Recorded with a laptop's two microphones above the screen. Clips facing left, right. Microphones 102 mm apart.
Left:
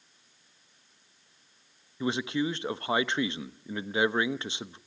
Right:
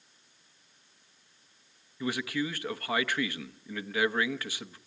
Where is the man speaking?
25° left (ahead or behind), 0.8 m.